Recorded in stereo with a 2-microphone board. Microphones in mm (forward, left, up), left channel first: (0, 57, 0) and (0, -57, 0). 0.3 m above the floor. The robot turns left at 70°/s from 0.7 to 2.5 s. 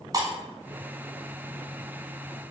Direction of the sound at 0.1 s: 35° right (ahead or behind).